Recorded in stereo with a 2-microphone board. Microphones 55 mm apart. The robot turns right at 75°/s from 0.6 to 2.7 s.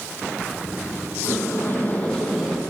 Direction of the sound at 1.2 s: 95° left.